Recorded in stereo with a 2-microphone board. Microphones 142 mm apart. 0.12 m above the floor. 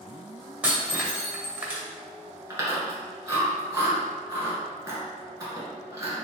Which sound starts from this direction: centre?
Breaking glass, at 0.6 s.